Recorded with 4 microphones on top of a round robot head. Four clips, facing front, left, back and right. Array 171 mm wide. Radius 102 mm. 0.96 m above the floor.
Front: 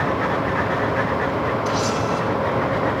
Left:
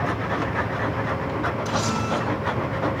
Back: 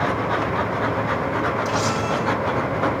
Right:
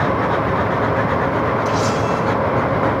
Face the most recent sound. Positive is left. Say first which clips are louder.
# right 7 dB, front 1 dB
turn(degrees=150)